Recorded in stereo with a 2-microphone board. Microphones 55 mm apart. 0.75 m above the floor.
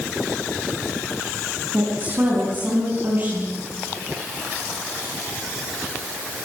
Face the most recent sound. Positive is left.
turn(degrees=-35)  # may be behind; listen again after turning